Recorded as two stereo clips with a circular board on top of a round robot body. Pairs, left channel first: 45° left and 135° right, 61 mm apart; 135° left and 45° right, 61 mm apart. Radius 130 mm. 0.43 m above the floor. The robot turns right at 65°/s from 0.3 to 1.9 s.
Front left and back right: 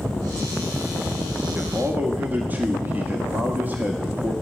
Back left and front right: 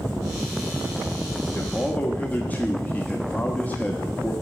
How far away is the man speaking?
About 1.5 m.